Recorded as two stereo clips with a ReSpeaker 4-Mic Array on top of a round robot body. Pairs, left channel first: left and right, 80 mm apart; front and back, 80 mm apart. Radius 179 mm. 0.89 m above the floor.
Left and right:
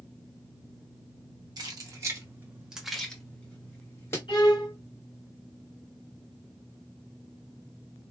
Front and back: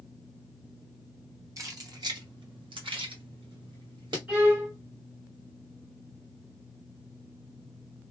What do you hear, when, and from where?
1.6 s keys jangling: 130° right, 0.9 m; by 4.2 s 150° left, 1.2 m
4.3 s a violin: 115° left, 2.5 m